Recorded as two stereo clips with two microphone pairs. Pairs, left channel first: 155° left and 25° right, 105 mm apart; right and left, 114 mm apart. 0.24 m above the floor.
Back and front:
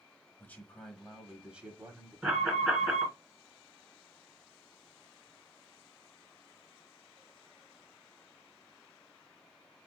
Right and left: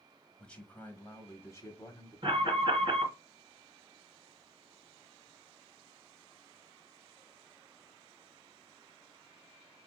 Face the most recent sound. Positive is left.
turn(degrees=50)